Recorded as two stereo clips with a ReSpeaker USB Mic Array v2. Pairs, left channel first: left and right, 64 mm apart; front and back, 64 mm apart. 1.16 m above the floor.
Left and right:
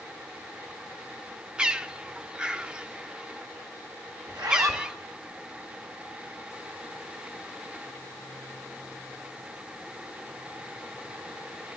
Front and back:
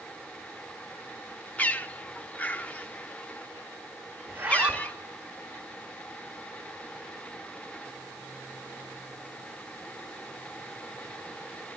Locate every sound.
1.6 s a bird: 30° right, 0.7 m
4.3 s a zipper: 110° right, 3 m